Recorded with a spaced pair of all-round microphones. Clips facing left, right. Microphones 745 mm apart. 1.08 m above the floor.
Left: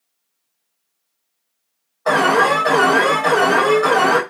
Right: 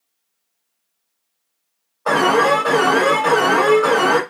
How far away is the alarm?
About 2 m.